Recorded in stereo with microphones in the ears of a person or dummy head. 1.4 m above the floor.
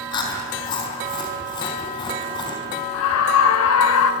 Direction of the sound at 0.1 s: 25° left (ahead or behind).